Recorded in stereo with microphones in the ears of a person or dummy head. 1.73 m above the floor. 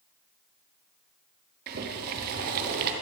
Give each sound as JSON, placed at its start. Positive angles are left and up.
{"t": 1.7, "sound": "boiling", "side_deg": -50, "distance_m": 1.1}